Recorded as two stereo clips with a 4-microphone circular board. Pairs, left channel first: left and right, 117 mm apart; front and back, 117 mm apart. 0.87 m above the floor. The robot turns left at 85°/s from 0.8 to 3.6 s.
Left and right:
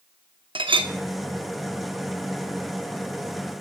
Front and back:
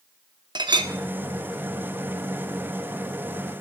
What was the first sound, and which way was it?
A clink, 130° right.